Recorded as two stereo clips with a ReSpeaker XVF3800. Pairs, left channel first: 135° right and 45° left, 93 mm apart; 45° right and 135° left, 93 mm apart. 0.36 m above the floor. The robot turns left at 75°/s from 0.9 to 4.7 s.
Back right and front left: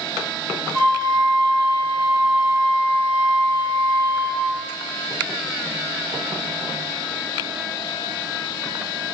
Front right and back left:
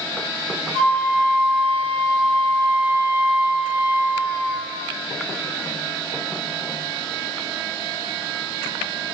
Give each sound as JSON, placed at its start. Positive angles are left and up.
{"t": 0.7, "sound": "a flute", "azimuth_deg": 155, "distance_m": 1.3}